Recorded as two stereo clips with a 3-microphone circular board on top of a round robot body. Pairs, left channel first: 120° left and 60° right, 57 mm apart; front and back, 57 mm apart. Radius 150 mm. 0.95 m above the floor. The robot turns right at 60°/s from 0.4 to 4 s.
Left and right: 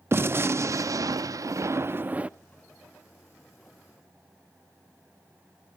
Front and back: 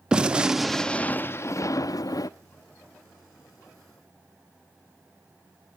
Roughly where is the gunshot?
Right.